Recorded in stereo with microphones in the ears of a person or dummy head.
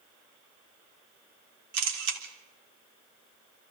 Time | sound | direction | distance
1.7 | a camera shutter | 70° right (ahead or behind) | 3.5 m